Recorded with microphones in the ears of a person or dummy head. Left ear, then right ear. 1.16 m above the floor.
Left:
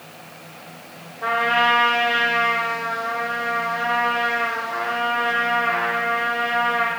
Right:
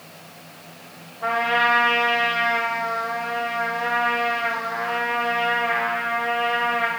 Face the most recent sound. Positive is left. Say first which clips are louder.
# left 1 dB
turn(degrees=55)  # may be behind; listen again after turning